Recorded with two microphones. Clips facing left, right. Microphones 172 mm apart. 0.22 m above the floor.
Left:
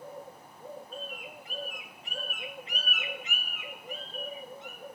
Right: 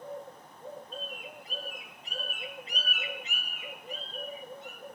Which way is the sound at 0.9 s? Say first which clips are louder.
Even; 35° right (ahead or behind).